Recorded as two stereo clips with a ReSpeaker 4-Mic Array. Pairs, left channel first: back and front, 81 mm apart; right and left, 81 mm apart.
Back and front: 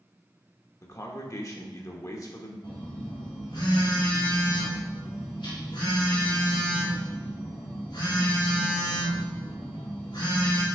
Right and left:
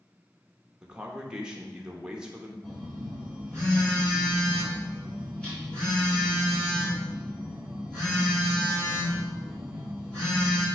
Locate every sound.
0.8 s a man speaking: 165° left, 1.0 m
2.6 s a phone buzzing: 165° right, 3.5 m